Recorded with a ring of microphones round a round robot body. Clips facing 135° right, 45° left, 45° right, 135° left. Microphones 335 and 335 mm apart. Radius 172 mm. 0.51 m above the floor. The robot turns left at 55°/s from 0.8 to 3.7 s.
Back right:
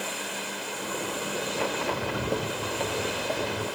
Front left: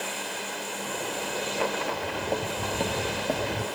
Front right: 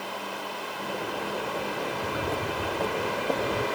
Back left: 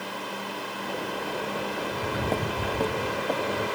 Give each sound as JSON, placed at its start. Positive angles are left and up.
{"t": 1.8, "sound": "footsteps", "azimuth_deg": -150, "distance_m": 0.8}